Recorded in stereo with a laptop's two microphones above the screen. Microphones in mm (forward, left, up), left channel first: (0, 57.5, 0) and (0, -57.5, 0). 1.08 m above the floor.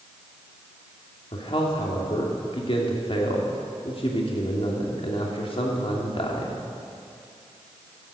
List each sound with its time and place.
1.3 s a man speaking: 50° left (ahead or behind), 2 m